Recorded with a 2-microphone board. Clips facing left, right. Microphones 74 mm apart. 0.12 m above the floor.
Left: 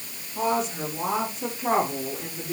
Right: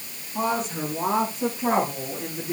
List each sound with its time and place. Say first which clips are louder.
0.3 s a woman speaking: even; 50° right (ahead or behind), 6.5 m; by 2.5 s 35° right (ahead or behind), 5.5 m